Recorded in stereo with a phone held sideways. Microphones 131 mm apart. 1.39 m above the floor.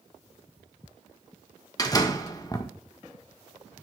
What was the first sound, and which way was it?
A door slam, 25° left (ahead or behind).